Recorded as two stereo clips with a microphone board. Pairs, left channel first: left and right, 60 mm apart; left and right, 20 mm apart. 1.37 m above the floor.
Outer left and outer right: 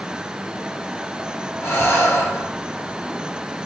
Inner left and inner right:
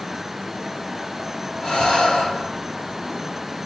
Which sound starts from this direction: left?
Breathing, at 1.6 s.